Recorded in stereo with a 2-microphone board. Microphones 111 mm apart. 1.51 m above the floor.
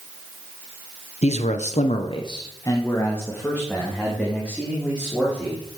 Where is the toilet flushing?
I don't hear a toilet flushing.